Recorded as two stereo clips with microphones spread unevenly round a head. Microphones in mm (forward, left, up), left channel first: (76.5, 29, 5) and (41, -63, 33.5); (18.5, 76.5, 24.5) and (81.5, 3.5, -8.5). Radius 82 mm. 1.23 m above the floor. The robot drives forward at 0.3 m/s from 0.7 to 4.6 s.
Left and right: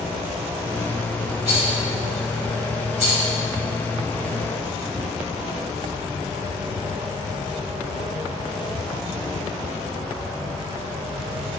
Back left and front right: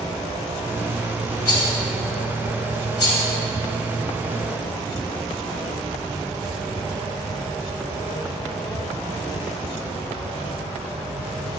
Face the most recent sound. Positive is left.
turn(degrees=175)